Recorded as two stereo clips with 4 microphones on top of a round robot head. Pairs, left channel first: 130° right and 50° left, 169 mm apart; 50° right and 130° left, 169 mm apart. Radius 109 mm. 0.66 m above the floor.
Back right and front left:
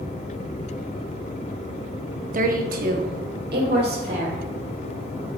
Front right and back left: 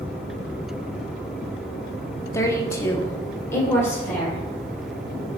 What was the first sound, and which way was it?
A woman speaking, 25° left.